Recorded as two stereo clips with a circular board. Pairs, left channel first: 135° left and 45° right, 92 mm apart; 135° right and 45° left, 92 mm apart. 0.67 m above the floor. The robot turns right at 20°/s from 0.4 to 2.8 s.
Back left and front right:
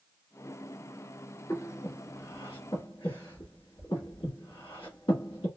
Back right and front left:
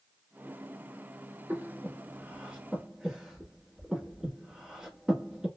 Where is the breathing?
95° left, 1.2 m; by 5.5 s 120° left, 1.2 m.